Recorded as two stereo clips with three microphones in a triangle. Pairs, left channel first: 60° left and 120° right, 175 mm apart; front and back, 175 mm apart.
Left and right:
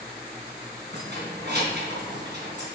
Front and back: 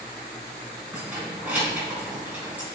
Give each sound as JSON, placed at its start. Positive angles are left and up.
{"t": 0.9, "sound": "keys jangling", "azimuth_deg": -100, "distance_m": 3.5}